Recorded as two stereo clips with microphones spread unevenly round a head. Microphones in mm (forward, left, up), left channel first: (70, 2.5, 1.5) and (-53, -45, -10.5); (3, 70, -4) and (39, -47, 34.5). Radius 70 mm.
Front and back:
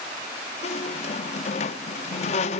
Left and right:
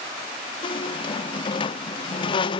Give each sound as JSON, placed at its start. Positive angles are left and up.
{"t": 0.6, "sound": "a squeak", "azimuth_deg": 50, "distance_m": 0.6}